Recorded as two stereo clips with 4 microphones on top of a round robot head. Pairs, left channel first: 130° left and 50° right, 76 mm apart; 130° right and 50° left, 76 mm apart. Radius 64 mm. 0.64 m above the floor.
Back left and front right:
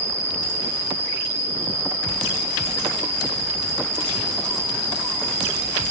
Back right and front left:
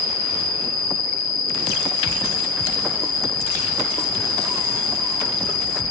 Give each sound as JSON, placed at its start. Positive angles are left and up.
{"t": 0.0, "sound": "an insect", "azimuth_deg": -105, "distance_m": 3.5}